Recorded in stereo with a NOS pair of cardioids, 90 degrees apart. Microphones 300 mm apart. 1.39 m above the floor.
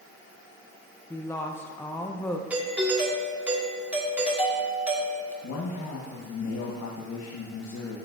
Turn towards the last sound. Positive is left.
turn(degrees=65)